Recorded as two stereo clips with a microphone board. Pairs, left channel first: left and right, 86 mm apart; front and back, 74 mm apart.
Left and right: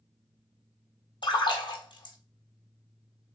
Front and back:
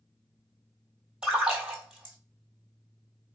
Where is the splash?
105° left, 1.1 m.